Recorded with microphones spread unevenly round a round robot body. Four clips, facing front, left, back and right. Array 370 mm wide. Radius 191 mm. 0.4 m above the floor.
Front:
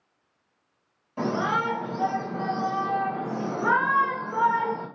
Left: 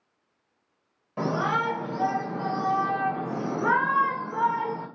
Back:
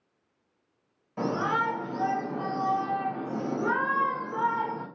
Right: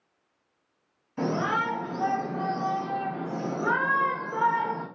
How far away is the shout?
About 1.8 m.